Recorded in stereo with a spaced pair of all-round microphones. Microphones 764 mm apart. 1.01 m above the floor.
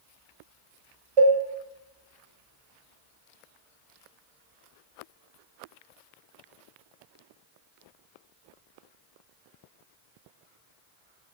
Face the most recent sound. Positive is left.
turn(degrees=-45)  # may be behind; listen again after turning